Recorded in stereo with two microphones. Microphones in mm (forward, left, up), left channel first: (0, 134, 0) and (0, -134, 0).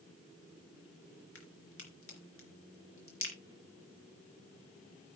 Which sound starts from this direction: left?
A crack, at 1.4 s.